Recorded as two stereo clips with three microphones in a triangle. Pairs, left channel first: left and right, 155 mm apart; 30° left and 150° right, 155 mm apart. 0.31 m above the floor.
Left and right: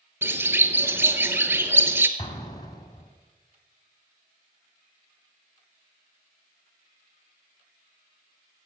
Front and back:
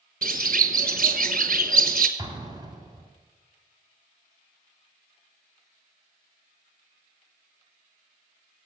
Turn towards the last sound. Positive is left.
turn(degrees=150)